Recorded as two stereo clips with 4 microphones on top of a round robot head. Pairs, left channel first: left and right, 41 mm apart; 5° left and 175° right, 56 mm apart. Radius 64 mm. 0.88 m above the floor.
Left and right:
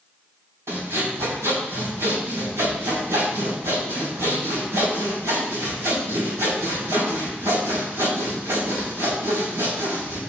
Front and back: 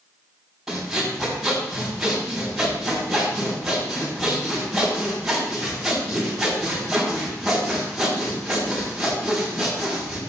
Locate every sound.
0.7 s sawing: 90° right, 7 m